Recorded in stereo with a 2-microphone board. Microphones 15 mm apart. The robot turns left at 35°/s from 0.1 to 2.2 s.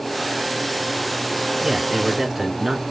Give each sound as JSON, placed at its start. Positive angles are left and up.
{"t": 1.6, "sound": "a man speaking", "side_deg": -20, "distance_m": 1.3}